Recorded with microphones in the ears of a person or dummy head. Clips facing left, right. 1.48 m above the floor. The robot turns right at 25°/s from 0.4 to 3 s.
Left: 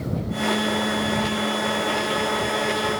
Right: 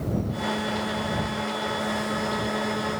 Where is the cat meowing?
I don't hear a cat meowing.